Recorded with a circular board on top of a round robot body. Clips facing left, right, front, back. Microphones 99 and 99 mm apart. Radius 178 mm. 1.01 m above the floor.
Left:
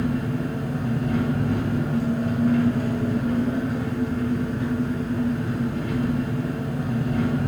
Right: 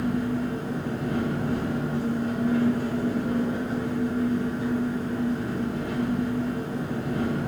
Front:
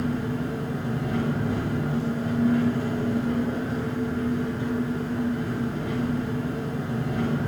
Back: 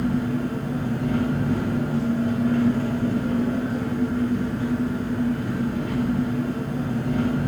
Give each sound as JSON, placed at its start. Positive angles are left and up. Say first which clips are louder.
{"t": 0.0, "sound": "an engine running", "louder": "left 1 dB, back 4 dB", "azimuth_deg": 130, "distance_m": 1.3}